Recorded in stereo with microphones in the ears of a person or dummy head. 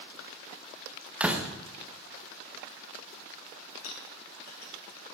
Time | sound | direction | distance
1.2 | a door slam | 5° right (ahead or behind) | 1.1 m
3.8 | a clink | 85° left | 5 m